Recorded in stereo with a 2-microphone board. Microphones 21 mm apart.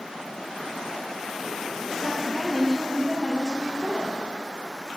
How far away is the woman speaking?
About 1.4 m.